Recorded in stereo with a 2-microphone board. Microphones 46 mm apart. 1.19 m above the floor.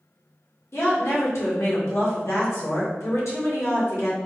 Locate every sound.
0.7 s a woman speaking: 75° left (ahead or behind), 1.2 m